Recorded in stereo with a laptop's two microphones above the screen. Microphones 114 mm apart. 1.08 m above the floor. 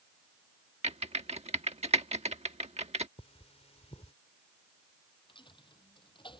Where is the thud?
No thud in this recording.